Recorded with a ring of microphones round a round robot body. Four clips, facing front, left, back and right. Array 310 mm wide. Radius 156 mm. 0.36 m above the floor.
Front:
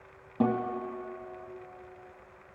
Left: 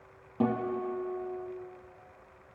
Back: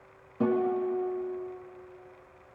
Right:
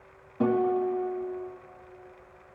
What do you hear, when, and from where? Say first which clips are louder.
0.4 s a guitar: right 5 dB, back 3 dB; 40° left, 2.5 m